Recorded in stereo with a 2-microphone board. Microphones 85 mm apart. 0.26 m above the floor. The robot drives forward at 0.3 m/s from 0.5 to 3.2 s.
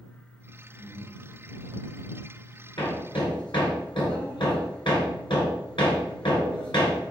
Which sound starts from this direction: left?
Hammering, at 2.8 s.